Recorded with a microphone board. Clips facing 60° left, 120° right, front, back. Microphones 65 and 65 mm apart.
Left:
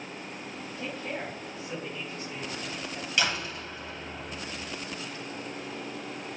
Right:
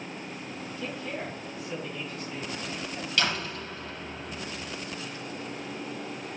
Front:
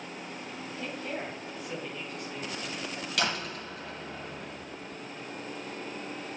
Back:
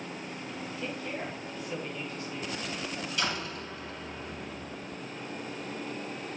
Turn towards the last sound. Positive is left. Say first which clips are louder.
# even, front 3 dB
turn(degrees=-10)